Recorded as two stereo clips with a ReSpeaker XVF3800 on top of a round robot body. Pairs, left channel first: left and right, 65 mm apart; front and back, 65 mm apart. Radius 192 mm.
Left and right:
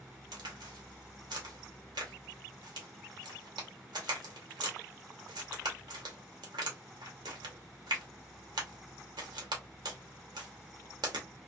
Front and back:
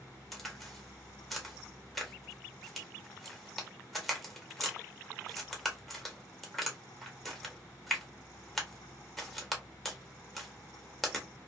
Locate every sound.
0.3 s a crack: 90° right, 1.0 m